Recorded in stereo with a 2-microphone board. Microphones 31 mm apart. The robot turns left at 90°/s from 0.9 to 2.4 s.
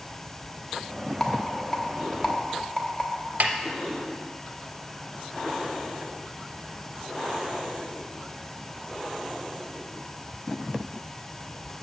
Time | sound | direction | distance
1.2 | a rattle | 5° left (ahead or behind) | 0.9 m
3.4 | a snare drum | 65° right (ahead or behind) | 0.6 m